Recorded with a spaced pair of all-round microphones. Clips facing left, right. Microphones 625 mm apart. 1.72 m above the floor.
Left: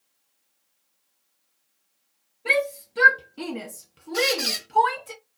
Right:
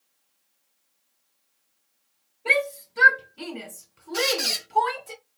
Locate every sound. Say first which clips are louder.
2.5 s a shout: left 1 dB; 45° left (ahead or behind), 0.9 m; by 5.1 s 30° left (ahead or behind), 1.2 m
4.1 s a squeak: left 2 dB; 15° right (ahead or behind), 0.7 m